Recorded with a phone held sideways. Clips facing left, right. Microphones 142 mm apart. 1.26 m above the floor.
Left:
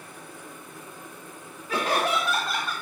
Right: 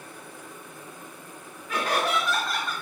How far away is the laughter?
About 1.2 m.